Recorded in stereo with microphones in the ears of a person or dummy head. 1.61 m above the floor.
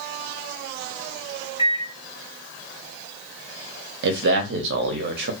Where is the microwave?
30° left (ahead or behind), 1.3 m.